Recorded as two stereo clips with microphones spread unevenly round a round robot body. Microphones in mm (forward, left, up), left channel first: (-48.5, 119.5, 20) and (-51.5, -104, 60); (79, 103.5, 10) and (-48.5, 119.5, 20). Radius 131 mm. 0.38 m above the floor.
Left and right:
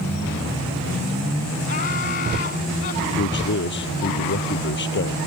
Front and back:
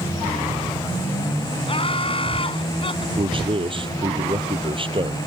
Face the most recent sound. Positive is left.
turn(degrees=125)